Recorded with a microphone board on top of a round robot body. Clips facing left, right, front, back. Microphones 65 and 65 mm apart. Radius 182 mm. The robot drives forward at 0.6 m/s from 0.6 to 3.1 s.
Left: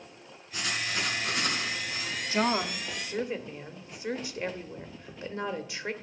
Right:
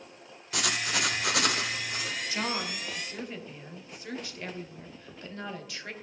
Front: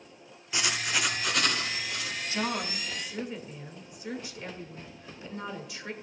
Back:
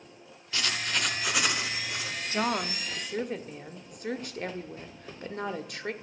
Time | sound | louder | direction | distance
0.5 | writing | right 2 dB, front 1 dB | 75° right | 1.2 m
2.3 | a woman speaking | left 8 dB, back 3 dB | 135° left | 0.9 m